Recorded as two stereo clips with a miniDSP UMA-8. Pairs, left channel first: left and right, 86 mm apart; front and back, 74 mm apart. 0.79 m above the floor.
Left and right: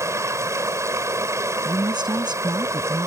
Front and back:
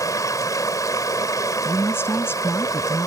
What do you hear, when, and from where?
0.0 s running water: 35° right
1.6 s a woman speaking: 60° right